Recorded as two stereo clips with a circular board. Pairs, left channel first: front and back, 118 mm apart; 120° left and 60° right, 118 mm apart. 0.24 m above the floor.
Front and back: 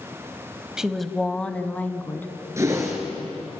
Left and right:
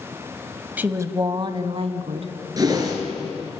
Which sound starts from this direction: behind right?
A whoosh, at 2.6 s.